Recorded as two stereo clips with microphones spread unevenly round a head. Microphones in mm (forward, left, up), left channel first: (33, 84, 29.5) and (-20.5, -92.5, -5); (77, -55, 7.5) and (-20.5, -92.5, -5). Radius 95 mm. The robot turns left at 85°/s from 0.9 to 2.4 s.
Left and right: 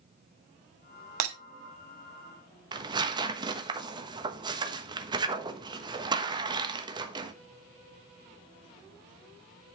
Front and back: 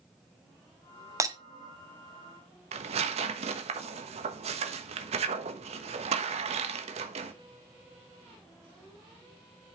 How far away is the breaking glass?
About 1.2 m.